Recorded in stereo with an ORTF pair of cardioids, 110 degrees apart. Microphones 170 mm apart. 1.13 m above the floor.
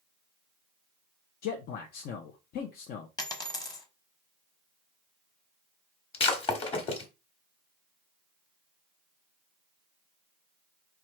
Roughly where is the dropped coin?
Ahead left.